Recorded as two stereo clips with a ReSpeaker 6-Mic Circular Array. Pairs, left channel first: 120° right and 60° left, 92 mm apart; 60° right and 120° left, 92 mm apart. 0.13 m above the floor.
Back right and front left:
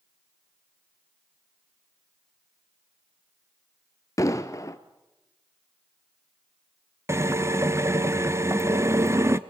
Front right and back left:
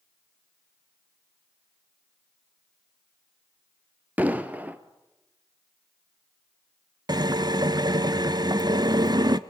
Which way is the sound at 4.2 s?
170° right.